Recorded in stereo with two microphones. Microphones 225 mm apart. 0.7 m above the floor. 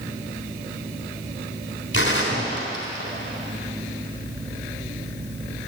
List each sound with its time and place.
1.9 s a gunshot: 60° left (ahead or behind), 3.5 m